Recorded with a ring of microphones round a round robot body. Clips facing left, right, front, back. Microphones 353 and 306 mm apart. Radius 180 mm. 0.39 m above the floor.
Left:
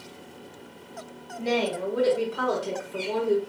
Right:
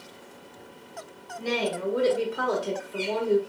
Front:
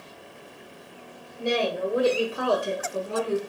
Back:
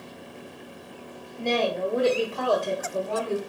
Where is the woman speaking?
70° right, 1.2 m; by 3.4 s 70° left, 1.3 m.